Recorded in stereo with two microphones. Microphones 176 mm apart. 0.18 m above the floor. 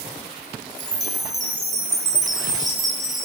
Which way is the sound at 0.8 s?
20° left (ahead or behind).